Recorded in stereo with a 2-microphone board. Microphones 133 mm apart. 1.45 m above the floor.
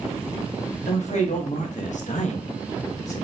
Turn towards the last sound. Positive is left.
turn(degrees=25)  # may be behind; listen again after turning